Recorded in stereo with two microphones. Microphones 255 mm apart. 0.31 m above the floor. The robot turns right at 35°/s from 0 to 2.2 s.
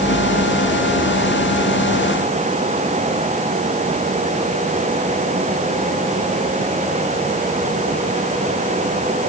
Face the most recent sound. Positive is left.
No sound to turn to.